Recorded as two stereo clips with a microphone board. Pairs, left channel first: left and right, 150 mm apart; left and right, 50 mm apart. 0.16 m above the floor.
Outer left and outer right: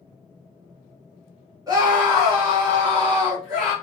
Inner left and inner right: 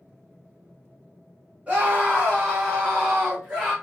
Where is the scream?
25° right (ahead or behind), 1.4 m.